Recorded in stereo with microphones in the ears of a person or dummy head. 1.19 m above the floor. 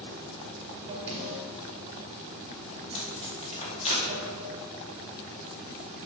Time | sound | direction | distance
0.0 | running water | 30° right (ahead or behind) | 1.6 m
1.1 | a snare drum | 10° right (ahead or behind) | 2.5 m
2.8 | tape being pulled | 35° left (ahead or behind) | 2.5 m